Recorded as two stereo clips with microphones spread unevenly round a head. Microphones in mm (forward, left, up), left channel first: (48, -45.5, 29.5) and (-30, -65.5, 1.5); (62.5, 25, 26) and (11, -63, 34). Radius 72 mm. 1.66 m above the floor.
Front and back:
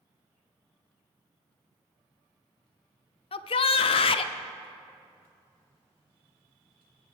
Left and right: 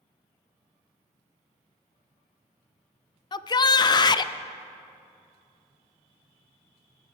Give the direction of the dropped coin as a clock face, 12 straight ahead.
I don't hear a dropped coin.